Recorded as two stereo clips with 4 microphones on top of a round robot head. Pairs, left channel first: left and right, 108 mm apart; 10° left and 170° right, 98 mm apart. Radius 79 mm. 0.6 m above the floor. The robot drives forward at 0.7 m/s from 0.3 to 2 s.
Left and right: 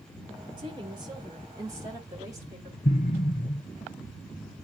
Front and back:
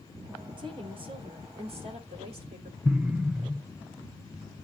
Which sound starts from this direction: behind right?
A woman speaking, at 0.6 s.